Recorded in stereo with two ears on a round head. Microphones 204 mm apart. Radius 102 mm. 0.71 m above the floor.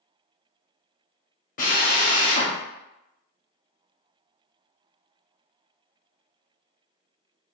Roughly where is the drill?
Left.